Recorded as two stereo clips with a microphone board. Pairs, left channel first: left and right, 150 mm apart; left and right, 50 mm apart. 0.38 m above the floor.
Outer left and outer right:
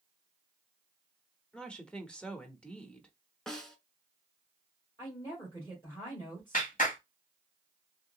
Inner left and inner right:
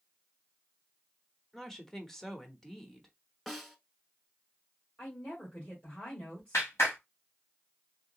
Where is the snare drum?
5° left (ahead or behind), 0.9 m.